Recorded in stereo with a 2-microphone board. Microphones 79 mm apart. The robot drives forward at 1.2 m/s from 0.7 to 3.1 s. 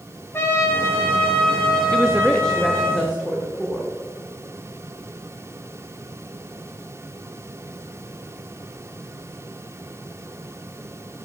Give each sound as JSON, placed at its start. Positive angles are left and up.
{"t": 0.3, "sound": "a trumpet", "side_deg": 30, "distance_m": 1.5}
{"t": 1.9, "sound": "a woman speaking", "side_deg": 5, "distance_m": 0.5}